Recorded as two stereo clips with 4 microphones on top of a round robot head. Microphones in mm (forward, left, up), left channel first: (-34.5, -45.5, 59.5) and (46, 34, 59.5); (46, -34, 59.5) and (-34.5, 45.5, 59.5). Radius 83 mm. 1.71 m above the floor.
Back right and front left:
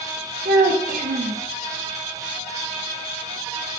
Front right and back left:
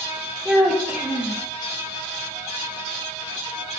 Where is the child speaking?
55° left, 1.9 m.